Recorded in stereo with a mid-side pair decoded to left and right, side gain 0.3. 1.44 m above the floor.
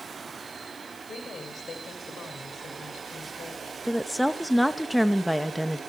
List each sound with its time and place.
1.1 s a woman speaking: 55° left, 6.5 m
3.9 s a woman speaking: 5° right, 1.9 m